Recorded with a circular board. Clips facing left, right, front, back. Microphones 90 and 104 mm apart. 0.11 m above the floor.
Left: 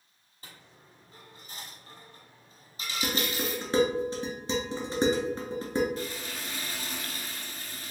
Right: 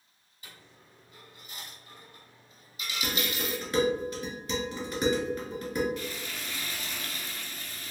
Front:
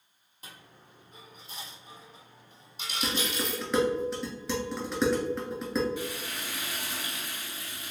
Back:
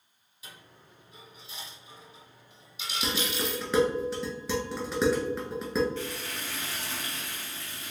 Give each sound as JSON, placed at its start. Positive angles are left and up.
{"t": 0.4, "sound": "a dropped coin", "azimuth_deg": 40, "distance_m": 1.1}
{"t": 3.0, "sound": "dishes clattering", "azimuth_deg": 90, "distance_m": 1.0}
{"t": 6.0, "sound": "frying", "azimuth_deg": 70, "distance_m": 0.9}